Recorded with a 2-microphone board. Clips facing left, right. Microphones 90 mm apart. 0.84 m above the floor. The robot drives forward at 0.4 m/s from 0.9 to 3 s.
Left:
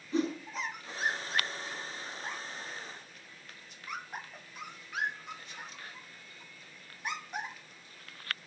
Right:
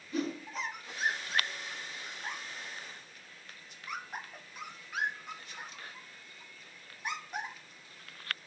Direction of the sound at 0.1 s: 25° left (ahead or behind).